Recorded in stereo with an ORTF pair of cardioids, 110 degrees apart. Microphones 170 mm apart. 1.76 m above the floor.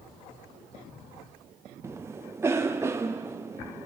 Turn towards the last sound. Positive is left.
turn(degrees=-15)